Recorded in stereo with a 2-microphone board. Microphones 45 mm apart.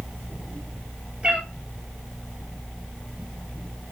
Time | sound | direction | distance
1.2 | a cat meowing | 25° right (ahead or behind) | 2.5 m